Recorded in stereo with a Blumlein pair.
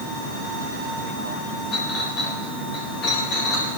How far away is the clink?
About 8.5 m.